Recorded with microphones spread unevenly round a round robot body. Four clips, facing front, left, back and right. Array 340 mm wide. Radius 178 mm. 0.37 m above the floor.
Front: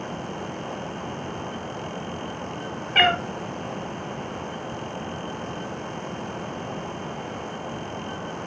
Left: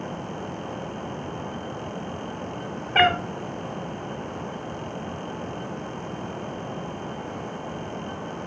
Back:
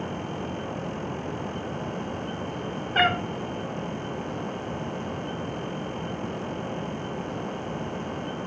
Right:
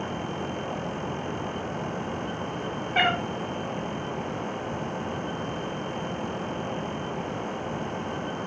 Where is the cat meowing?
90° left, 0.6 m.